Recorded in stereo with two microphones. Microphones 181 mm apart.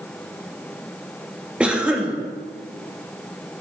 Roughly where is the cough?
Centre.